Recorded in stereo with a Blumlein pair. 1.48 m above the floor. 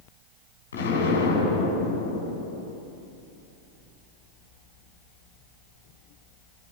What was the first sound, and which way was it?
An explosion, 65° left.